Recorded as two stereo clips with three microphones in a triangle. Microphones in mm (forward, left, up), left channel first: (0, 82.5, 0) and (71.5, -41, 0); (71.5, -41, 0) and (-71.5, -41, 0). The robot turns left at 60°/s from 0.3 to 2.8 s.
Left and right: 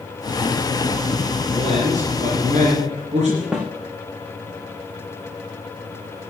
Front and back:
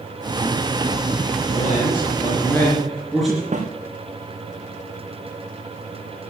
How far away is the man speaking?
About 3.5 m.